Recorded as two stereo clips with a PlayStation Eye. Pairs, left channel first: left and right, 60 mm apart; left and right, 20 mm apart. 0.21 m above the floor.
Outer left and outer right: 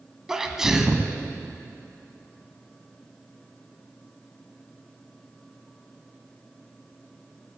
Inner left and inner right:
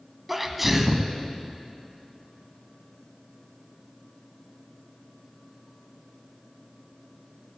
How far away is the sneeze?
About 1.2 m.